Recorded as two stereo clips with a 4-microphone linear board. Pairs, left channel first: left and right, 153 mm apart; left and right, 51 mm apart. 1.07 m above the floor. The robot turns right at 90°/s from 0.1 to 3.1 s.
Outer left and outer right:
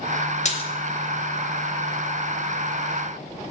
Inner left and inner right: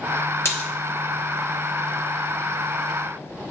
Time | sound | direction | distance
0.5 | a splash | 50° left (ahead or behind) | 1.0 m